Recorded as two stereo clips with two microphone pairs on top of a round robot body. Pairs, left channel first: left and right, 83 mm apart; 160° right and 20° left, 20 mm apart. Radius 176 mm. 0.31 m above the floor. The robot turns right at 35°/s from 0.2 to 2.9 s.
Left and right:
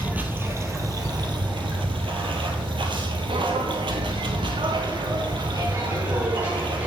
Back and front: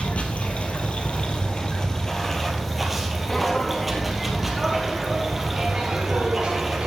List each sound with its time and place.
0.0 s running water: 155° right, 1.8 m; by 6.9 s 65° right, 1.8 m
3.3 s footsteps: 85° right, 3 m; by 6.9 s 15° right, 3.5 m